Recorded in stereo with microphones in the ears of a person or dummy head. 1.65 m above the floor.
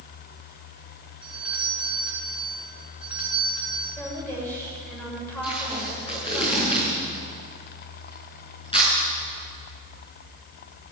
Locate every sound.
1.2 s a doorbell: 5° right (ahead or behind), 4 m
4.0 s a woman speaking: 5° left (ahead or behind), 7 m
5.4 s tape being pulled: 25° left (ahead or behind), 6 m